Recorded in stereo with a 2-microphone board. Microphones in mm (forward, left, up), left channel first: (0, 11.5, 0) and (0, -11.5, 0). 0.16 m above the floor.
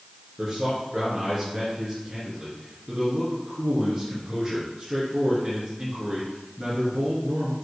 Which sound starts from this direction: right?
A man speaking, at 0.4 s.